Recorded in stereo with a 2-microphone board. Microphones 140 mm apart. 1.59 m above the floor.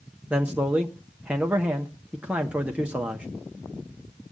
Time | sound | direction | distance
0.3 | a man speaking | 10° right (ahead or behind) | 0.9 m